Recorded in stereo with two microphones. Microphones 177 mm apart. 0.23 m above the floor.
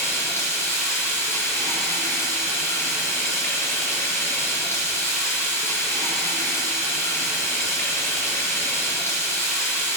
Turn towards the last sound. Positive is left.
turn(degrees=15)  # may be behind; listen again after turning